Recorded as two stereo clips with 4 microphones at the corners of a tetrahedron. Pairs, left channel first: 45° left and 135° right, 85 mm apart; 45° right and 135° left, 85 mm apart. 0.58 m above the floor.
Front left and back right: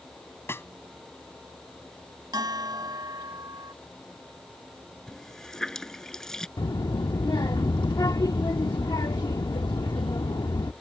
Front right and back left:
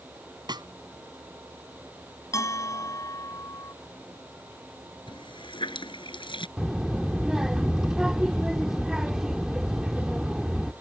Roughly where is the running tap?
Ahead right.